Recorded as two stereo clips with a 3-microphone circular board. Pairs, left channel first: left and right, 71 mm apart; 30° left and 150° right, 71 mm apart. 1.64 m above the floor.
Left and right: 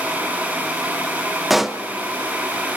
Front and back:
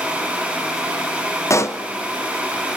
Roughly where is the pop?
Ahead.